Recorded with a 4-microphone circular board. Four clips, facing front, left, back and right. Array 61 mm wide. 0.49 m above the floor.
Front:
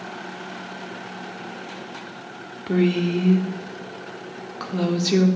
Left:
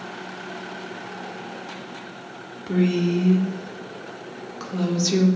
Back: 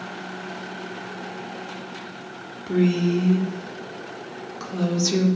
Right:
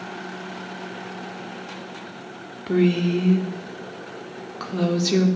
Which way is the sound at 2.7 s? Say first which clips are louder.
Right 2 dB, even; 35° right.